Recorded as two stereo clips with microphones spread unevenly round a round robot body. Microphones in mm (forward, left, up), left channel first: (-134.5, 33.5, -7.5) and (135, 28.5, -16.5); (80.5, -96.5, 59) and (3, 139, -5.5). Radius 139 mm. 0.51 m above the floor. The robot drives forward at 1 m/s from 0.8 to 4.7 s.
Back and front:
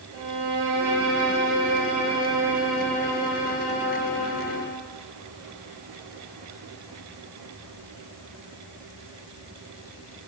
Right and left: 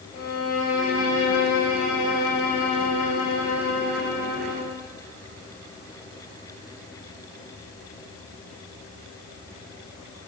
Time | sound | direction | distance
0.1 | a violin | 40° right | 2.5 m